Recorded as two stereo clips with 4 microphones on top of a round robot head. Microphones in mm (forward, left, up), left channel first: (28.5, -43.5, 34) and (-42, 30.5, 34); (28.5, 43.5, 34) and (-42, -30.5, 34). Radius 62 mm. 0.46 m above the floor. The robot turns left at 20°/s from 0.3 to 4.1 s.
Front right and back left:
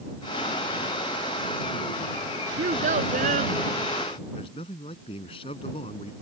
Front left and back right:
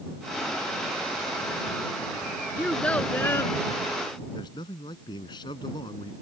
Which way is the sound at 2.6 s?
130° left.